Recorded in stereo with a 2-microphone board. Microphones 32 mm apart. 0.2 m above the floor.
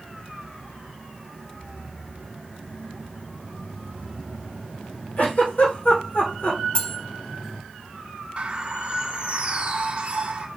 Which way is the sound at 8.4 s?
35° right (ahead or behind).